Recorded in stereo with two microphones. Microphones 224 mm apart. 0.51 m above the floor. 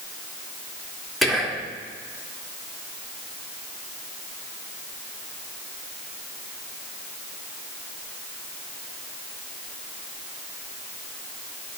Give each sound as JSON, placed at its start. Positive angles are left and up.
{"t": 1.2, "sound": "whispering", "side_deg": 0, "distance_m": 1.2}